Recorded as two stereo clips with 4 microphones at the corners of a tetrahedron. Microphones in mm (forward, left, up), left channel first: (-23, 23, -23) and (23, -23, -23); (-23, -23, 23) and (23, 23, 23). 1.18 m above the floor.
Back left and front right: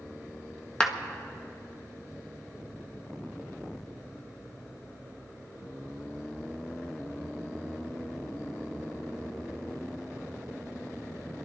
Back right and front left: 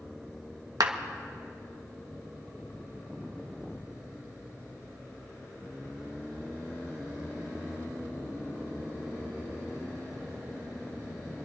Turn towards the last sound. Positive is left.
turn(degrees=60)